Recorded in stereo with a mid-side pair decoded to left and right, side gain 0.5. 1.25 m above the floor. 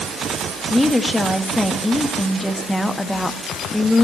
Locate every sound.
0.7 s a woman speaking: 5° left, 1.6 m